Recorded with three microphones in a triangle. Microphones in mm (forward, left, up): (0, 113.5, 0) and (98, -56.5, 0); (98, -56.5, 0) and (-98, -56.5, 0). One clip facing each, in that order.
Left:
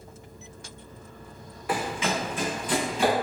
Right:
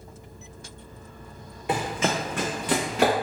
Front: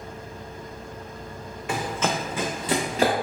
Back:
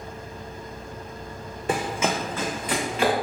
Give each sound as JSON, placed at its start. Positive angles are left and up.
{"t": 1.7, "sound": "running footsteps", "azimuth_deg": -125, "distance_m": 0.6}